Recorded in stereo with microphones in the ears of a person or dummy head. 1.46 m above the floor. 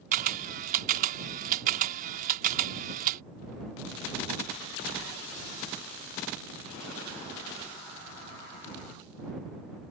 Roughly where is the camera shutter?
Right.